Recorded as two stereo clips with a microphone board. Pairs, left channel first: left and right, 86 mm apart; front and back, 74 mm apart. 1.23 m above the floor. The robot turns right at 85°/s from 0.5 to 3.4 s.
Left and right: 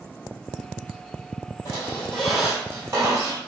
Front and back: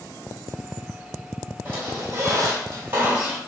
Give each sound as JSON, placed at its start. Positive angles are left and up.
{"t": 1.6, "sound": "a squeak", "azimuth_deg": 125, "distance_m": 1.7}